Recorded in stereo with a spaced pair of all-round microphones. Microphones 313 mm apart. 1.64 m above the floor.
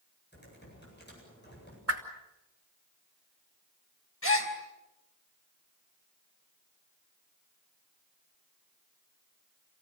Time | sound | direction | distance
0.3 | typing on a keyboard | 35° left (ahead or behind) | 8.5 m
1.9 | a whoosh | 45° right (ahead or behind) | 3 m
4.2 | a gasp | 45° left (ahead or behind) | 3.5 m